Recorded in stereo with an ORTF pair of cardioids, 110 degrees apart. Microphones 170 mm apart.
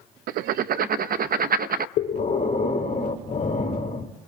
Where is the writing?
65° right, 0.7 m.